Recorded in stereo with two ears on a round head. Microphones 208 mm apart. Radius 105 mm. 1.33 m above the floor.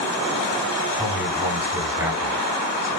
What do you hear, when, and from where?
0.9 s a man speaking: 10° right (ahead or behind), 3.5 m